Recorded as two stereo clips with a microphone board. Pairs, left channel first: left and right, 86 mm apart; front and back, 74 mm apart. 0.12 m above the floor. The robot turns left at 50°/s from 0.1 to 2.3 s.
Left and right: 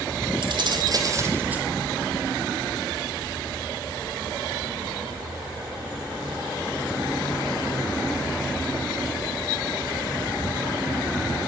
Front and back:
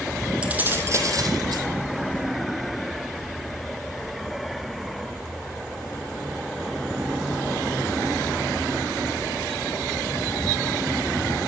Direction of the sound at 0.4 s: 105° right.